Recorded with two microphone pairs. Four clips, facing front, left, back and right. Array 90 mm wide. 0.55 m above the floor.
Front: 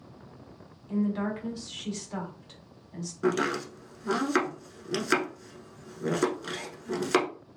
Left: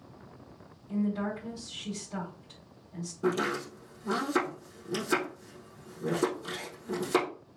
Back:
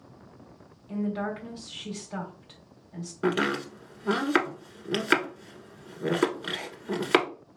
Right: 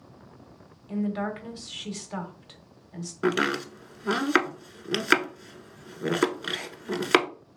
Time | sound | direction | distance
0.9 | a woman speaking | 90° right | 1.6 m
3.2 | chopping | 100° right | 1.1 m